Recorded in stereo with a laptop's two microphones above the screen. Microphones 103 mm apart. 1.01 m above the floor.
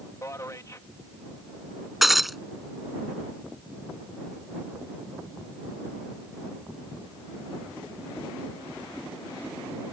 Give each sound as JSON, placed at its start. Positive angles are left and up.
{"t": 0.2, "sound": "a man speaking", "side_deg": 30}
{"t": 2.0, "sound": "breaking glass", "side_deg": 0}